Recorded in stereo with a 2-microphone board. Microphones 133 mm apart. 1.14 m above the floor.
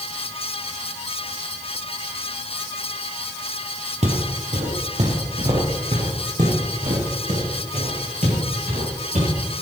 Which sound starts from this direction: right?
Footsteps, at 4.0 s.